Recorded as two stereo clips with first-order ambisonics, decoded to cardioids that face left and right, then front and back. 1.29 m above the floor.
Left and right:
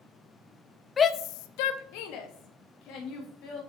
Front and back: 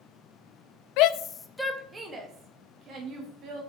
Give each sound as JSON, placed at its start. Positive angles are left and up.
{"t": 1.0, "sound": "a shout", "azimuth_deg": 20, "distance_m": 0.6}